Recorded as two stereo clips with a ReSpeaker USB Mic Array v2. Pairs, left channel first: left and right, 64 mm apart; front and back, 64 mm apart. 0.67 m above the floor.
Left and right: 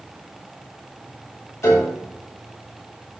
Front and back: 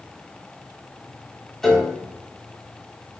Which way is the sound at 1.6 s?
80° left.